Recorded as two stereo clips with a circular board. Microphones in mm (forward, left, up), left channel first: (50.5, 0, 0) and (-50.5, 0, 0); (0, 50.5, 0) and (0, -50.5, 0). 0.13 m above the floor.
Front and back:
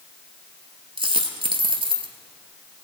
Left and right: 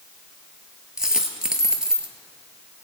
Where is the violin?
I don't hear a violin.